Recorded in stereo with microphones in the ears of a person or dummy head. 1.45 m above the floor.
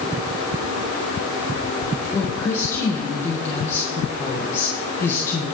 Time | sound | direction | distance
2.1 | a woman speaking | 20° left (ahead or behind) | 1.7 m